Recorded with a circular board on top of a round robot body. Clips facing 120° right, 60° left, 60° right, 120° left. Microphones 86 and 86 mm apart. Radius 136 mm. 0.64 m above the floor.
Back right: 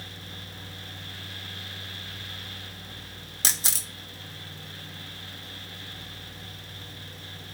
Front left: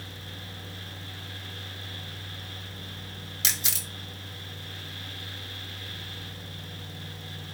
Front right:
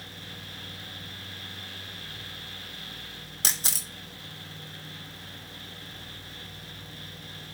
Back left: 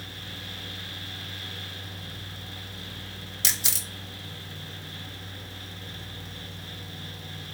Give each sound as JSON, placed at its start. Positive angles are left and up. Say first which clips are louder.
{"t": 3.4, "sound": "a camera shutter", "louder": "back right 2 dB, even", "azimuth_deg": -85, "distance_m": 1.5}